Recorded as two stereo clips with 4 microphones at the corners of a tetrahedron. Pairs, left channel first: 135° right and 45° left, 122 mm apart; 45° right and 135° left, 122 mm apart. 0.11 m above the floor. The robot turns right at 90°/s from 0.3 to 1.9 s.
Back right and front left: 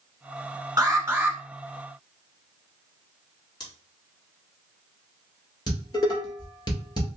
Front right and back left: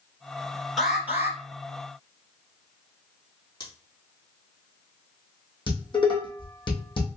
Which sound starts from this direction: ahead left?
An alarm, at 0.8 s.